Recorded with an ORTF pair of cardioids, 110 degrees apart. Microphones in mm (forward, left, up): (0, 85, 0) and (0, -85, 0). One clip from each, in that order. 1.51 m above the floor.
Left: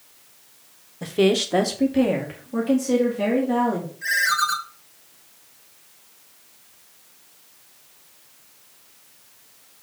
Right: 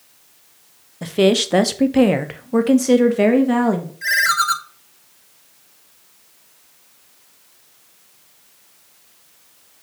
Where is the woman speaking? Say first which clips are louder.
Right 4 dB; 15° right, 1.0 m; by 3.9 s 75° right, 1.8 m.